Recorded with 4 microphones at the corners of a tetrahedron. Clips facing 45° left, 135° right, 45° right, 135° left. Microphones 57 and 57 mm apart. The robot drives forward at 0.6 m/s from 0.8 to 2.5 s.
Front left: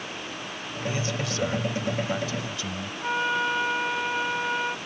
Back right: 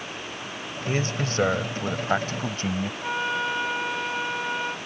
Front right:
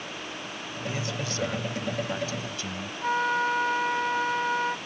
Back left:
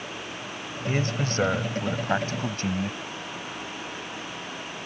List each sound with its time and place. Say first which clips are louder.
0.9 s a man speaking: back right 3 dB, back left 6 dB; straight behind
3.0 s a flute: front left 3 dB, front right 11 dB; 40° right